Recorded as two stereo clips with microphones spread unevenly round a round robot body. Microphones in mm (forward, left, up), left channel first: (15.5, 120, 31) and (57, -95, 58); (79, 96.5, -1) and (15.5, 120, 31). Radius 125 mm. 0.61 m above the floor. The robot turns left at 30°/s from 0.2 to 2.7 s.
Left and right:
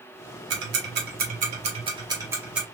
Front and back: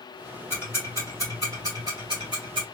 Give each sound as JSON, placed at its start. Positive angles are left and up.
{"t": 0.5, "sound": "ticking", "azimuth_deg": -105, "distance_m": 1.1}